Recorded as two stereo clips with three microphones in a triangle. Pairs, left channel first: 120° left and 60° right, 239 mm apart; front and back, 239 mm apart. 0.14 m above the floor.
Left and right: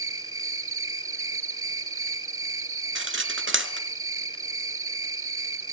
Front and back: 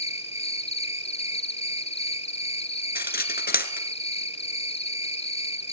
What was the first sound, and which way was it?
An insect, 65° right.